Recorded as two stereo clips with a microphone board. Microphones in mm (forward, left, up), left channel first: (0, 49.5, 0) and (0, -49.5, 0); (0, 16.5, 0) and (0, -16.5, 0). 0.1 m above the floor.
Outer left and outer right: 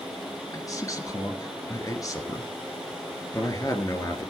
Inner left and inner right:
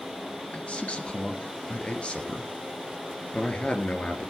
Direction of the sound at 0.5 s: 35° left (ahead or behind).